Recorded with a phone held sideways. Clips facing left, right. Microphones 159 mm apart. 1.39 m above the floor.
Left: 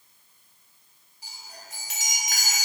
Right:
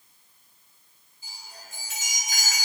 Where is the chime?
80° left, 1.9 m.